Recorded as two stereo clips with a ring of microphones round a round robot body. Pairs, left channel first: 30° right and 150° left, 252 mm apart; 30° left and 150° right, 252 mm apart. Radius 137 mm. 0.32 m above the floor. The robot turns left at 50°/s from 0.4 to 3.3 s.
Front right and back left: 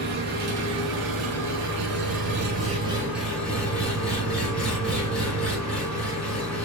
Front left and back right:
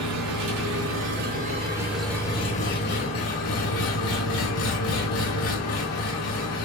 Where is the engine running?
160° right, 4.5 m; by 6.7 s 55° left, 4.5 m.